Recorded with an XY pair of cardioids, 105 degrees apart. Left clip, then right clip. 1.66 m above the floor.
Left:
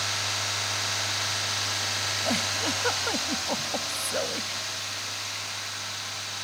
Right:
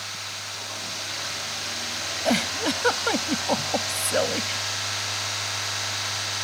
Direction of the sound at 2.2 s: 40° right.